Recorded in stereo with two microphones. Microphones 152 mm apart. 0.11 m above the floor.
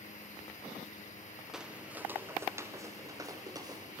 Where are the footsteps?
5° right (ahead or behind), 1.6 m; by 4.0 s 25° right (ahead or behind), 3.5 m.